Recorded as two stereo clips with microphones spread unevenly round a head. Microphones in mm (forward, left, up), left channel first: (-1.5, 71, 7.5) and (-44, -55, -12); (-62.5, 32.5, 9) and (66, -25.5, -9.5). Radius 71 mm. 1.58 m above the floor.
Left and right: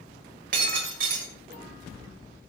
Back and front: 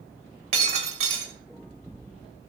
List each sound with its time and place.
0.5 s breaking glass: 75° right, 3.5 m